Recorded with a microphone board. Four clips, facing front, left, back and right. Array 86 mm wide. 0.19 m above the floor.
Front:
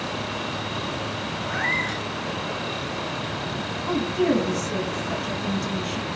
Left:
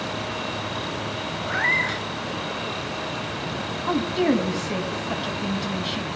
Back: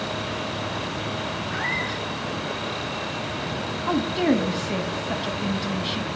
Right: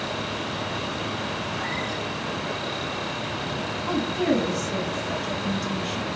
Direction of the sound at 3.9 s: 140° left.